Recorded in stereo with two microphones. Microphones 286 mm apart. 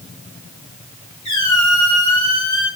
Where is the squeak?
75° left (ahead or behind), 1.0 m.